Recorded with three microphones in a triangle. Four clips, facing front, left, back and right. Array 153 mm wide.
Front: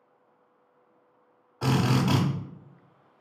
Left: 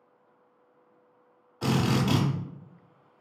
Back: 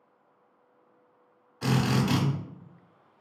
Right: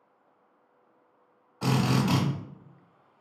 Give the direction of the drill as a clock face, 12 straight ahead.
1 o'clock.